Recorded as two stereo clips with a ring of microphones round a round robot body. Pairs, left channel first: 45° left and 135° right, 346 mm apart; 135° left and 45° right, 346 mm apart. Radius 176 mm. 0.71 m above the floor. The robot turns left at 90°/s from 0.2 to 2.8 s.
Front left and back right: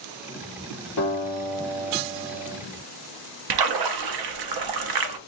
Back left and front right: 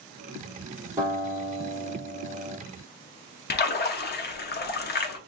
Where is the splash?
160° right, 0.7 m.